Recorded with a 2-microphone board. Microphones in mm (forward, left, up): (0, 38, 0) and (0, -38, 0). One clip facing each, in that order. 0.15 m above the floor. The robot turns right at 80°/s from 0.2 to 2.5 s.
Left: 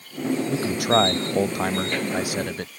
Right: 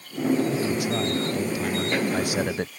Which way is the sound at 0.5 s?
35° left.